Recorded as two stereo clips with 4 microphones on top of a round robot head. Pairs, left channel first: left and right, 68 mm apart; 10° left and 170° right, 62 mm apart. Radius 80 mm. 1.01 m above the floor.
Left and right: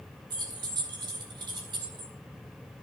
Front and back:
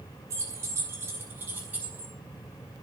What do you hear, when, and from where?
0.3 s keys jangling: 120° right, 4 m; by 2.1 s 95° right, 5.5 m